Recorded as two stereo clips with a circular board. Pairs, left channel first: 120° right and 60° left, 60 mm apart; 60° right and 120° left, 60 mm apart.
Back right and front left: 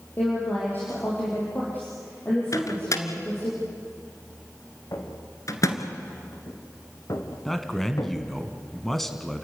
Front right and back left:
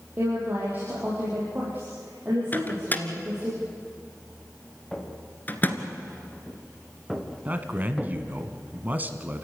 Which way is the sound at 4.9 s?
150° right.